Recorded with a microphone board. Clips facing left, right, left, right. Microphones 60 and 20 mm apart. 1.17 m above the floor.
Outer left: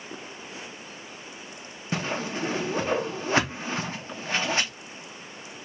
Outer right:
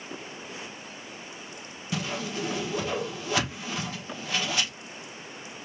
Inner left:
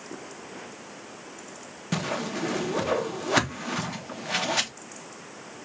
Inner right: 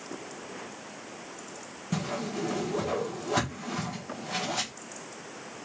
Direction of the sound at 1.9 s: 35° left (ahead or behind).